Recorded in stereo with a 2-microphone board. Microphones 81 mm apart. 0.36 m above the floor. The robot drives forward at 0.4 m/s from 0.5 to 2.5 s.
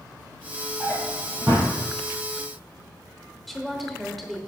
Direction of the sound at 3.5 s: Centre (ahead or behind).